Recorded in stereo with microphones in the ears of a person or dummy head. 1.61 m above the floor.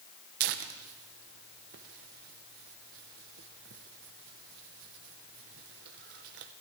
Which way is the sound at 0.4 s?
50° right (ahead or behind).